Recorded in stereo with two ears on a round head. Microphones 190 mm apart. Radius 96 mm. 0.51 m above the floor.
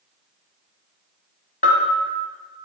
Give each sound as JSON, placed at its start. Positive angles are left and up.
{"t": 1.6, "sound": "a bell", "side_deg": 35, "distance_m": 1.2}